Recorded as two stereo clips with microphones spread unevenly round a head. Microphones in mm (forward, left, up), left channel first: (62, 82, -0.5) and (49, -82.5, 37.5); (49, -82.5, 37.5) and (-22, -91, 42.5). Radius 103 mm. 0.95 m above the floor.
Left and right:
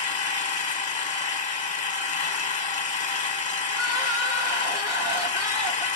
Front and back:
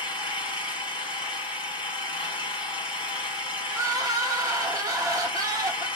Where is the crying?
175° right, 1.0 m.